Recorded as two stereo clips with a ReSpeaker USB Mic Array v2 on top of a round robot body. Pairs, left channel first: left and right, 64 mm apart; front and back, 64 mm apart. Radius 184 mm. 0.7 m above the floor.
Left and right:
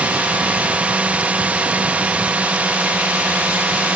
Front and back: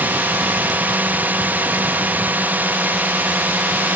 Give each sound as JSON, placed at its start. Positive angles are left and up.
{"t": 0.0, "sound": "a drone", "azimuth_deg": -145}